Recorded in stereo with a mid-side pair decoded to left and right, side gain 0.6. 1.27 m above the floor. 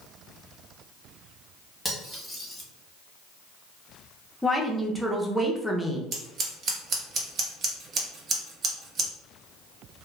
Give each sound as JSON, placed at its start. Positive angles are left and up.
{"t": 1.9, "sound": "cutlery clinking", "azimuth_deg": 5, "distance_m": 1.1}
{"t": 4.4, "sound": "a woman speaking", "azimuth_deg": 5, "distance_m": 0.7}
{"t": 6.1, "sound": "scissors", "azimuth_deg": -45, "distance_m": 0.9}